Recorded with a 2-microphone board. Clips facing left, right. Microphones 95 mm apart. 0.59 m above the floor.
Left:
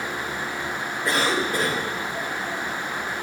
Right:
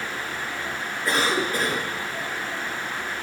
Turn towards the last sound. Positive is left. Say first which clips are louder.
# even
turn(degrees=70)  # may be behind; listen again after turning